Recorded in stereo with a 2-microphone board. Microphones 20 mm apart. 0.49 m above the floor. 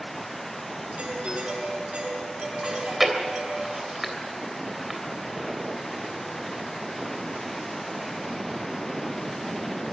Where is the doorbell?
75° right (ahead or behind), 8.5 m.